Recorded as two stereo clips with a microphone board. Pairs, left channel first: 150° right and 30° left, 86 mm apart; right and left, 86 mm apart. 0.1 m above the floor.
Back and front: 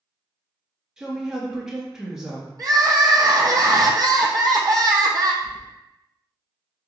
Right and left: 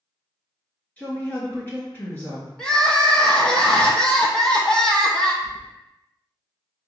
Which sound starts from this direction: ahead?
Crying, at 2.6 s.